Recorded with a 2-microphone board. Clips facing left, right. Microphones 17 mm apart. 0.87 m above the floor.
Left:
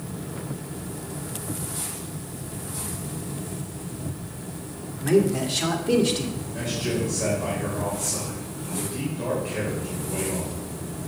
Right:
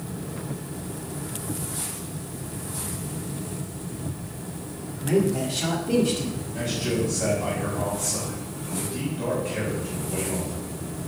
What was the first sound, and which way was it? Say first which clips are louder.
A man speaking: left 2 dB; 75° left (ahead or behind).